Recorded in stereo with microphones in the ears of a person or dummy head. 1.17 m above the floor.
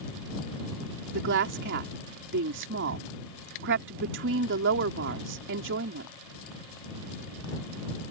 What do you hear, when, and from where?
1.1 s a woman speaking: 60° right (ahead or behind)